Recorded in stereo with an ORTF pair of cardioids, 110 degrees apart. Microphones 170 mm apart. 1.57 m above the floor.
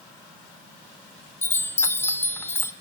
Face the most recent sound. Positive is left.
turn(degrees=15)